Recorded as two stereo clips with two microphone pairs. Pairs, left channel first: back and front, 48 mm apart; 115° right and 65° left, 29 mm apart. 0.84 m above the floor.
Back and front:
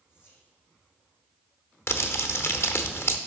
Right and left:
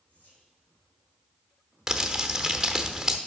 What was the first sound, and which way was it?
Whispering, 150° right.